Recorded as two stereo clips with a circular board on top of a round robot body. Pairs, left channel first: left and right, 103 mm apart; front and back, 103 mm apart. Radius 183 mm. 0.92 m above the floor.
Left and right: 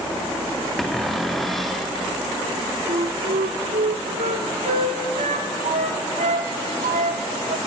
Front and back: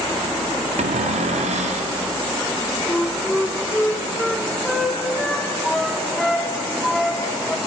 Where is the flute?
85° right, 0.6 m.